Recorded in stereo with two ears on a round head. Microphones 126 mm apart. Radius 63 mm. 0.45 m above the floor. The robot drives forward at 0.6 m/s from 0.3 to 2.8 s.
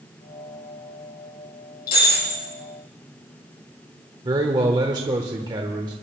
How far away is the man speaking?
About 1.0 m.